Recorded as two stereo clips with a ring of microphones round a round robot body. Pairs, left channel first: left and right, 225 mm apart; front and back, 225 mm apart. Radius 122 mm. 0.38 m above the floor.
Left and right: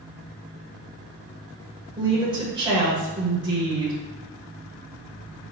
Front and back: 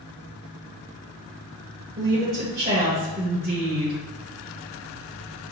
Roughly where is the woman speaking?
Behind right.